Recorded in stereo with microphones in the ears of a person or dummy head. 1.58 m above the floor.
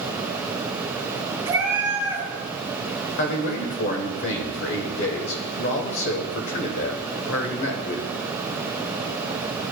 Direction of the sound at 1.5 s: 25° right (ahead or behind).